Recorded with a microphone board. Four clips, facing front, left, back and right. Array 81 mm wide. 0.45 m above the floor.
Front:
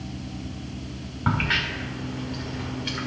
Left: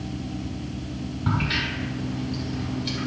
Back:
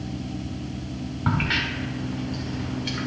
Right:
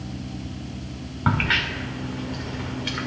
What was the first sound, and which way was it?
A crack, 80° right.